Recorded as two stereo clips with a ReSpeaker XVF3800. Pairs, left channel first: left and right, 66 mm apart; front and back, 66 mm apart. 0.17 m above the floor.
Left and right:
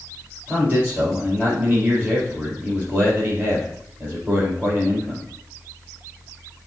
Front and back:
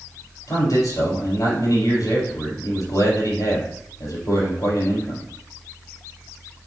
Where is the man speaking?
20° right, 4 m.